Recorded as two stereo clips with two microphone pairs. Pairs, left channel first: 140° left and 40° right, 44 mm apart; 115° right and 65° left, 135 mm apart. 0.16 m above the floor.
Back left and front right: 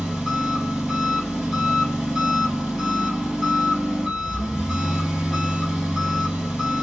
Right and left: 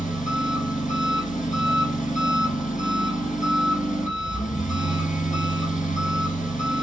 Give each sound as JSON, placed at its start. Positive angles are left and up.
{"t": 0.0, "sound": "an engine running", "azimuth_deg": -125, "distance_m": 2.0}